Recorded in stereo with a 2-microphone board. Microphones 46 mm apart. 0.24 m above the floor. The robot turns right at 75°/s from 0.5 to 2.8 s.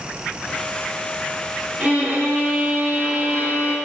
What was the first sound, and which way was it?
A violin, 155° right.